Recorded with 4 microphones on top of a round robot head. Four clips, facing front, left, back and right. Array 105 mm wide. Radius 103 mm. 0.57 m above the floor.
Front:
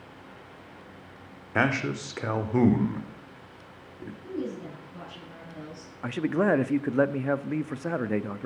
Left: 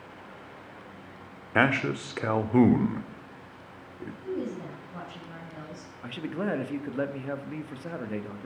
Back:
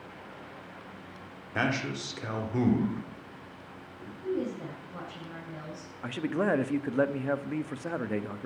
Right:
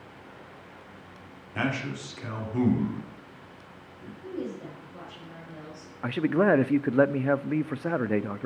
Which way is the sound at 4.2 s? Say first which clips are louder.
Left 2 dB, back 2 dB; 125° left.